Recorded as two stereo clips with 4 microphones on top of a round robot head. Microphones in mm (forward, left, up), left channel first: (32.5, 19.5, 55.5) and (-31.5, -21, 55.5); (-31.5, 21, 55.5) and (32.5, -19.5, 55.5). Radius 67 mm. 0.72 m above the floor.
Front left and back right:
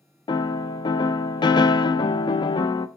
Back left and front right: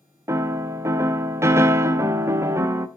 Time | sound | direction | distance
0.3 | a piano | 20° left | 0.6 m